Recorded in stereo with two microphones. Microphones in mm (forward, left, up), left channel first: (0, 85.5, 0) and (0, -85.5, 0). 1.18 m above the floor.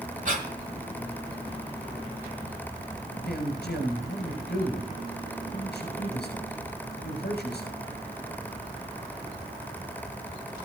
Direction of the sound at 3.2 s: 70° left (ahead or behind).